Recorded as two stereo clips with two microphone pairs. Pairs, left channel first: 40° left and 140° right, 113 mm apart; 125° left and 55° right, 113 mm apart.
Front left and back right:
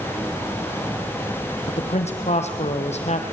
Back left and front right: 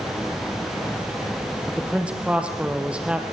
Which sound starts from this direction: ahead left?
A man speaking, at 1.7 s.